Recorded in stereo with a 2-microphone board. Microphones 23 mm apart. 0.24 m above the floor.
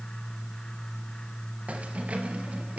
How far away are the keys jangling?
About 3 m.